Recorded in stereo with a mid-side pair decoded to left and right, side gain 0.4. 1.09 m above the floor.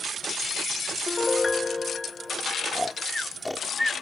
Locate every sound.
1.1 s a piano: 25° left
2.7 s snoring: 10° left